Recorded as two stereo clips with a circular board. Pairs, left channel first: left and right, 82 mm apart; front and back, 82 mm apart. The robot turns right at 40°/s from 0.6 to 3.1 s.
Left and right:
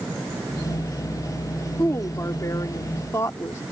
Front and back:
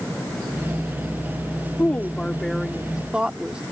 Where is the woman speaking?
55° left; by 3.6 s 110° left.